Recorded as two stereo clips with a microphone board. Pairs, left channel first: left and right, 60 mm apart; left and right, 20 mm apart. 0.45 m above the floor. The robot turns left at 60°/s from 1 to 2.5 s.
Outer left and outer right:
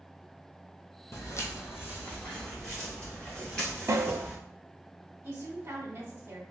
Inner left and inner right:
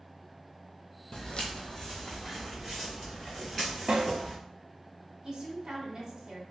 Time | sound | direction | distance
1.1 | footsteps | 55° left (ahead or behind) | 0.7 m
3.9 | a snare drum | 60° right (ahead or behind) | 0.6 m
5.2 | a woman speaking | 50° right (ahead or behind) | 1.2 m